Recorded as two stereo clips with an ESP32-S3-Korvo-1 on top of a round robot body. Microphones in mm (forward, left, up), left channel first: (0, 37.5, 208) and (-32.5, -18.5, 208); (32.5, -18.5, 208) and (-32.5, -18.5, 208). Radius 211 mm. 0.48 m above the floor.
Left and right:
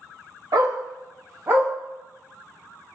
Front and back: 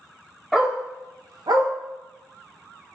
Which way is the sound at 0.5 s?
95° right.